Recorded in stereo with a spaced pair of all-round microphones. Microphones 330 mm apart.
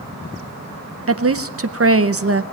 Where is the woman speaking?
45° right (ahead or behind), 0.7 m.